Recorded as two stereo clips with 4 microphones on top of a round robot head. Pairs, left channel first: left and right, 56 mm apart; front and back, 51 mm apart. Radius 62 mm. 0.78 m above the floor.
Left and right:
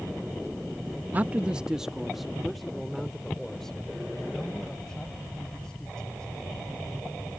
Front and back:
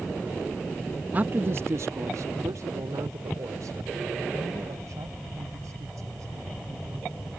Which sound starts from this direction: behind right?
A man speaking, at 1.1 s.